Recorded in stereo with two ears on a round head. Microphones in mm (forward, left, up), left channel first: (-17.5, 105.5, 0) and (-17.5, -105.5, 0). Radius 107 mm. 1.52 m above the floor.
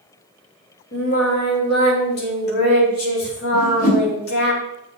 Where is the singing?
45° left (ahead or behind), 3.5 m.